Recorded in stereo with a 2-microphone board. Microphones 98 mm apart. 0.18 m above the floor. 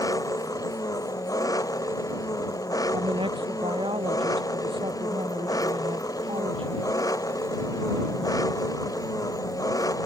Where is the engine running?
40° left (ahead or behind).